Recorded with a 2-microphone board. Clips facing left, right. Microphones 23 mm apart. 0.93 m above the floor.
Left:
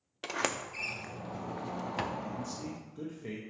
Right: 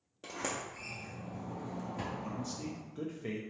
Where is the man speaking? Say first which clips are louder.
Left 1 dB; 20° right (ahead or behind), 0.8 m.